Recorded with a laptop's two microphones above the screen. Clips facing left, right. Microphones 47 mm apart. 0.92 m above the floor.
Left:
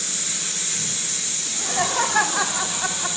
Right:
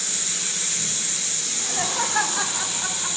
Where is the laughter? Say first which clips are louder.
Left 5 dB; 30° left (ahead or behind), 2.5 m; by 3.2 s 60° left (ahead or behind), 3 m.